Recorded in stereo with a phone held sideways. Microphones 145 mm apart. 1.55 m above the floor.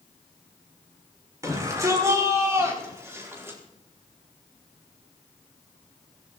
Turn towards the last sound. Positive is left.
turn(degrees=-15)  # may be behind; listen again after turning